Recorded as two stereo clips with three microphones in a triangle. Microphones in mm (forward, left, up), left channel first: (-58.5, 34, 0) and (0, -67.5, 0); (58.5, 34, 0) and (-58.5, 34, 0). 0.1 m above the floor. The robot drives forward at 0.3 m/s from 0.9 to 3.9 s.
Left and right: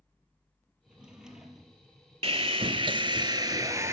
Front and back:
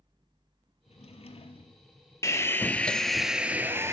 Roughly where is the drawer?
Ahead.